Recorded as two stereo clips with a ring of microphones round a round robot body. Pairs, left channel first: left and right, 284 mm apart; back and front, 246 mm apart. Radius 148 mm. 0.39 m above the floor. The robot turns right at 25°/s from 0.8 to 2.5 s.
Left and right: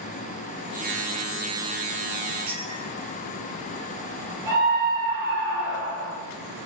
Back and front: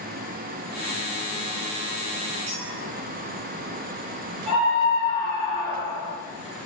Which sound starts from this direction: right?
A scream, at 4.5 s.